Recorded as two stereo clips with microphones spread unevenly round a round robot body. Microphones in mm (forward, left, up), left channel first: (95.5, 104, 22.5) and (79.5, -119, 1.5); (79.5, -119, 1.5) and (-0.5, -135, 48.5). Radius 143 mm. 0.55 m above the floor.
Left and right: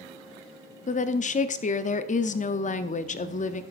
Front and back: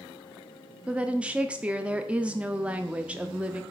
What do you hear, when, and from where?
0.9 s a woman speaking: 65° left, 0.6 m